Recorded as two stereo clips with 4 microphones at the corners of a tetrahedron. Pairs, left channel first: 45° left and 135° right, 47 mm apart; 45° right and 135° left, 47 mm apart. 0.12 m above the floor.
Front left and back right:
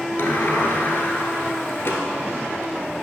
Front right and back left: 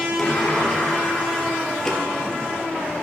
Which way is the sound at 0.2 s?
35° left.